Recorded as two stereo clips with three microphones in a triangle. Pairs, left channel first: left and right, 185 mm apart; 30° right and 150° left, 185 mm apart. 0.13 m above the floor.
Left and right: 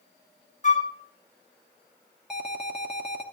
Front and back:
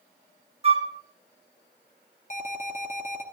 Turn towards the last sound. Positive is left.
turn(degrees=-5)